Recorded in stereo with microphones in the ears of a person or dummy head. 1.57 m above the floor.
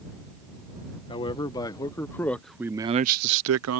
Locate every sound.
1.1 s a man speaking: 35° left (ahead or behind); by 3.8 s 85° right